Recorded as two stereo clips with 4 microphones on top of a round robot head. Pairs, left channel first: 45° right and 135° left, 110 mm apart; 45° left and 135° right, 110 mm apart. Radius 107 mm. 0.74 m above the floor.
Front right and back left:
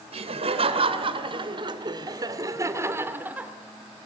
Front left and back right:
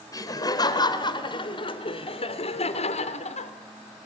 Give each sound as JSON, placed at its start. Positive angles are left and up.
{"t": 0.1, "sound": "laughter", "azimuth_deg": 105, "distance_m": 3.0}